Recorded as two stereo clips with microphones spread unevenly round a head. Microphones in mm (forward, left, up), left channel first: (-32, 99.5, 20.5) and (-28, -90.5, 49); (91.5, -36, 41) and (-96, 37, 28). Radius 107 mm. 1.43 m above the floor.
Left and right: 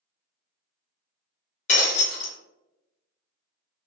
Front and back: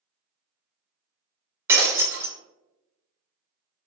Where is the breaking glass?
85° left, 0.6 m.